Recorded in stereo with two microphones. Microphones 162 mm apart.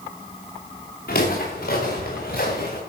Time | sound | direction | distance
1.1 | footsteps | 75° left (ahead or behind) | 5 m